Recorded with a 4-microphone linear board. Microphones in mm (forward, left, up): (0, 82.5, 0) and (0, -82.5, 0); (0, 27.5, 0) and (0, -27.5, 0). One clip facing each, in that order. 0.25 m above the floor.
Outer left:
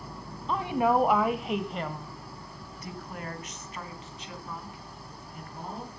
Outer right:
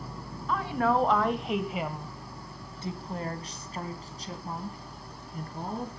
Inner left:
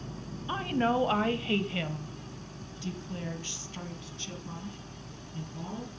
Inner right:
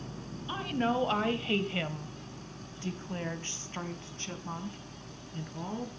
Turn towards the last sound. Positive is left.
turn(degrees=-40)  # may be behind; listen again after turning